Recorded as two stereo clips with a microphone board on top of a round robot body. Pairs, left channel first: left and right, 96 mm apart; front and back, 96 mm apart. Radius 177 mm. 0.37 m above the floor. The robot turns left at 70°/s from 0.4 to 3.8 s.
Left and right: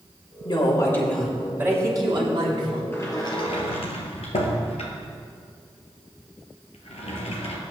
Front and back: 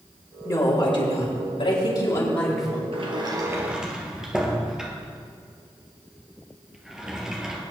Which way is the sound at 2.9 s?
160° left.